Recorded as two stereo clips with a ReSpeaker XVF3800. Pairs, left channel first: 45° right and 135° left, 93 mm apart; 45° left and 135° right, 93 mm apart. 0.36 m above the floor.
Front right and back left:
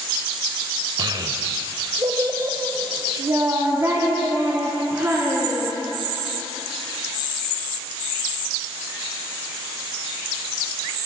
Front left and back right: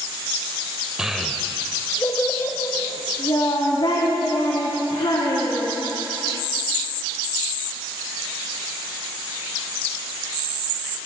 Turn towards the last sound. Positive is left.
turn(degrees=70)